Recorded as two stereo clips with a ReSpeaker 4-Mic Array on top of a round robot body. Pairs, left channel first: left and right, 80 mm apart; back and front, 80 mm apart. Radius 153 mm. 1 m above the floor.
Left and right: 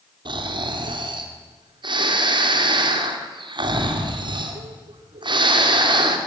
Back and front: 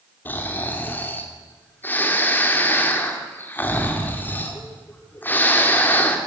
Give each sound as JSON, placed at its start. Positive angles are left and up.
{"t": 0.2, "sound": "snoring", "azimuth_deg": -110, "distance_m": 2.5}